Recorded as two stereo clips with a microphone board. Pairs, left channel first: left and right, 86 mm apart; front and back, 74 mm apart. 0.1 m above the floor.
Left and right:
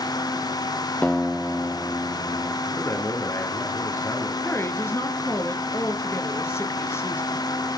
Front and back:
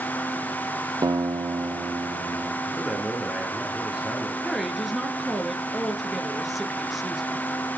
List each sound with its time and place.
1.0 s a guitar: 160° left, 0.6 m
2.6 s a man speaking: 105° left, 1.6 m
4.4 s a woman speaking: 95° left, 1.4 m